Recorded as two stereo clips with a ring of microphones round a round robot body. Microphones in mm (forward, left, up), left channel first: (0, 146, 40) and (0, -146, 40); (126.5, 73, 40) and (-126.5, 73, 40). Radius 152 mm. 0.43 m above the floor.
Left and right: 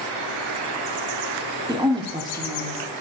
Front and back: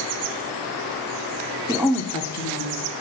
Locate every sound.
1.7 s a woman speaking: 140° right, 0.8 m; by 2.9 s 15° right, 1.3 m